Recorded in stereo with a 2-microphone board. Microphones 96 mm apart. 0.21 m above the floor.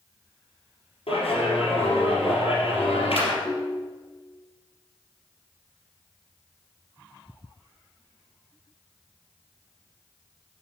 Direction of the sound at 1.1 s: 75° left (ahead or behind).